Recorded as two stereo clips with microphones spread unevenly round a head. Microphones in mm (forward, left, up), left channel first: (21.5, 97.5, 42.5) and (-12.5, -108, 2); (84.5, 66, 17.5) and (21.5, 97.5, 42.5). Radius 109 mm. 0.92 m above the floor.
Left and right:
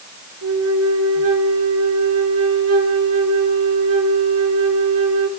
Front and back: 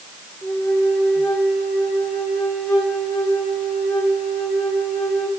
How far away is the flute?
About 4 m.